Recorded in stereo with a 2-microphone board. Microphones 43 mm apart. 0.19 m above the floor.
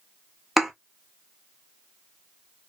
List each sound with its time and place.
0.6 s a thud: 5° right (ahead or behind), 0.7 m